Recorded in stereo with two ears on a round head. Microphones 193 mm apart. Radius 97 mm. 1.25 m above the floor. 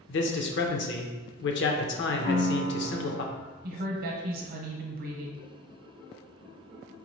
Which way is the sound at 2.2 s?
40° left (ahead or behind).